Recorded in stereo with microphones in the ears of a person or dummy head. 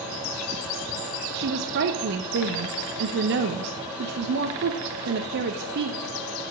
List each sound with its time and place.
1.3 s a woman speaking: 60° right (ahead or behind), 0.8 m